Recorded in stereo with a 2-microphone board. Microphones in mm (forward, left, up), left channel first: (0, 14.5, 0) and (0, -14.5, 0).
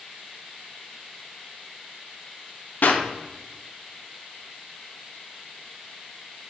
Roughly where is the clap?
Left.